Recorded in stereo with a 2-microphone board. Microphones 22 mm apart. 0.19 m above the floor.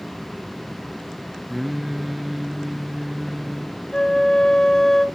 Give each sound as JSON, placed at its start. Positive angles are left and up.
{"t": 1.5, "sound": "singing", "side_deg": -10, "distance_m": 1.4}
{"t": 3.9, "sound": "a flute", "side_deg": 30, "distance_m": 0.9}